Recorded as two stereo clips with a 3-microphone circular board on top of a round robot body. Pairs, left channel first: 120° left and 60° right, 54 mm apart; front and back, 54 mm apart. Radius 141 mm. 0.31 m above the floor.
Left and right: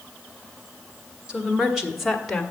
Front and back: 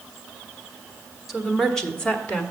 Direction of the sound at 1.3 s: 95° right.